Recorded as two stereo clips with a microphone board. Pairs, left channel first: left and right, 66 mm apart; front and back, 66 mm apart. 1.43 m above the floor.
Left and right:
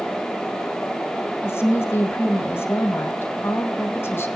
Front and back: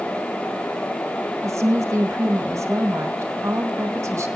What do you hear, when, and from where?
1.4 s a woman speaking: 140° left, 2.5 m